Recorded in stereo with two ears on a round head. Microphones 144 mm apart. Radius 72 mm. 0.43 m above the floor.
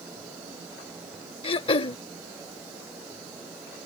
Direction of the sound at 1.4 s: 35° left (ahead or behind).